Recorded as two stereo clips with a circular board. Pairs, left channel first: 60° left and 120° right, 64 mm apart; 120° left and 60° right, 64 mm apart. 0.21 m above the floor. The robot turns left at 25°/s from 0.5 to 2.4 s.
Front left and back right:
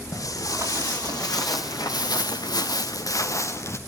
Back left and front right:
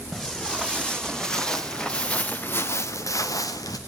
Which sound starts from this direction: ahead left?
Footsteps, at 0.1 s.